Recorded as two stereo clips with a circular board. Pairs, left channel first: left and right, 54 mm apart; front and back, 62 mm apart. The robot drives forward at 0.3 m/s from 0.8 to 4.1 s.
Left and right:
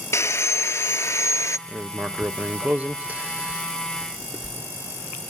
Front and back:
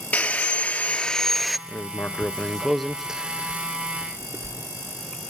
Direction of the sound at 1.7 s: 35° right.